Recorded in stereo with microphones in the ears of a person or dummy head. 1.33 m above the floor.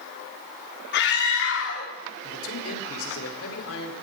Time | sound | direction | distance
0.9 | a scream | 55° left (ahead or behind) | 2.5 m
2.2 | a man speaking | 90° left | 4 m